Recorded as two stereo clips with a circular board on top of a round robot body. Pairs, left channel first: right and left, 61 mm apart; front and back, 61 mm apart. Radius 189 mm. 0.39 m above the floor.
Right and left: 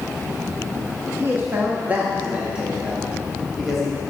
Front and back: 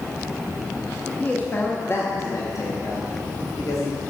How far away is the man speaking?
About 1.3 m.